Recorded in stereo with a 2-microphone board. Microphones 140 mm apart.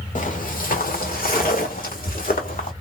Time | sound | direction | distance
0.1 | footsteps | 65° left (ahead or behind) | 1.0 m